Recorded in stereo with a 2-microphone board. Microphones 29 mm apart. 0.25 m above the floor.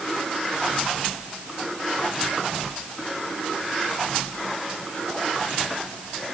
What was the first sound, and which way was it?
Only background noise.